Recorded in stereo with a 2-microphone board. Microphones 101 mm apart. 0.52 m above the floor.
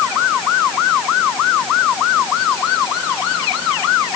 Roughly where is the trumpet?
I don't hear a trumpet.